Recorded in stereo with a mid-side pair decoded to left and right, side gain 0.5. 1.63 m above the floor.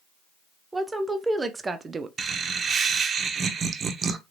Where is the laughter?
45° right, 0.9 m.